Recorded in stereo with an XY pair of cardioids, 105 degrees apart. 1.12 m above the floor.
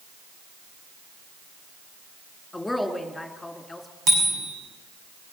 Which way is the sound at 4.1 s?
65° right.